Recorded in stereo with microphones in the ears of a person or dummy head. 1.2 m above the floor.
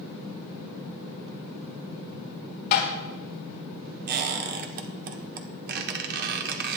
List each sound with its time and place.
2.7 s tapping: 55° left (ahead or behind), 3 m
4.1 s a squeak: 55° right (ahead or behind), 1.3 m